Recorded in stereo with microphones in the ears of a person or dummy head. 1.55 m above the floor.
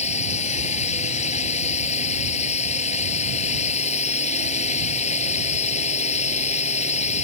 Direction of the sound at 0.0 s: 40° left (ahead or behind).